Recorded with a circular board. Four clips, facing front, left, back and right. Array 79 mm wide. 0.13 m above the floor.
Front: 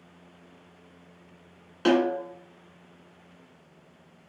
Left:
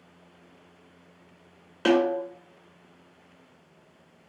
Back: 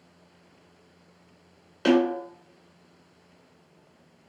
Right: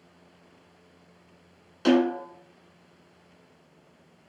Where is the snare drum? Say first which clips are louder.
Even, back 1 dB; 75° left, 1.6 m.